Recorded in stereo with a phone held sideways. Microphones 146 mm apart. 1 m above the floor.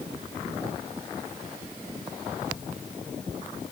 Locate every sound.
Only background noise.